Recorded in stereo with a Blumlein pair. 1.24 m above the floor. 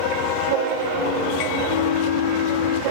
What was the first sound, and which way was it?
A flute, 50° left.